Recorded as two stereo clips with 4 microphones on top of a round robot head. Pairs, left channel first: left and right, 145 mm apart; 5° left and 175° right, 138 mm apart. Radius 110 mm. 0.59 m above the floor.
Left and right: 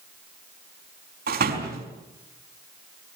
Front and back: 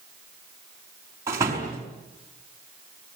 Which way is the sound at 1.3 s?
100° right.